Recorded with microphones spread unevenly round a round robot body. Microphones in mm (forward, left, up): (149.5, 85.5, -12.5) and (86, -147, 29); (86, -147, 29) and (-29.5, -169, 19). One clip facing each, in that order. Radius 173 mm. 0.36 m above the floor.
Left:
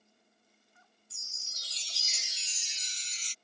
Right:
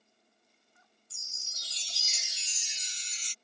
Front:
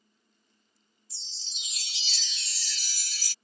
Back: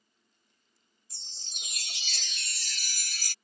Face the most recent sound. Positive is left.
turn(degrees=-125)